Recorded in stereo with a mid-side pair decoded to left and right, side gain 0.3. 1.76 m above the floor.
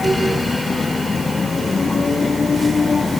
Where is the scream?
No scream in this recording.